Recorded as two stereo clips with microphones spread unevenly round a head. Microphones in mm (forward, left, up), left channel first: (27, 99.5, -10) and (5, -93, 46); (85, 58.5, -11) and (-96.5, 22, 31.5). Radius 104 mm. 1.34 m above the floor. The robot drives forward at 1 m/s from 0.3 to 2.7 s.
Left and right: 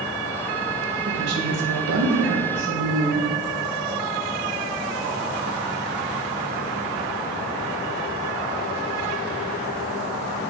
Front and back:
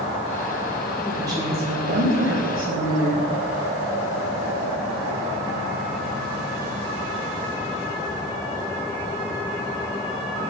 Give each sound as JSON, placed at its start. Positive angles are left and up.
{"t": 1.1, "sound": "a woman speaking", "azimuth_deg": -85, "distance_m": 1.4}